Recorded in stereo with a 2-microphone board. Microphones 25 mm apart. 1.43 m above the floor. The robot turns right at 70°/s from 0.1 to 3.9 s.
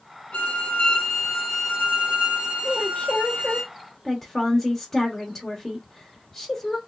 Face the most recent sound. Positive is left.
turn(degrees=165)